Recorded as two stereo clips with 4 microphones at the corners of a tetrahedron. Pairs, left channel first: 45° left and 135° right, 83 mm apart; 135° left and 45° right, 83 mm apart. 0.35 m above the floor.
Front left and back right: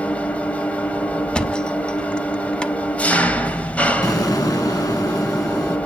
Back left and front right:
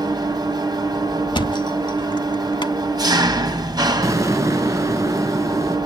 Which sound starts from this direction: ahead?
An explosion, at 4.0 s.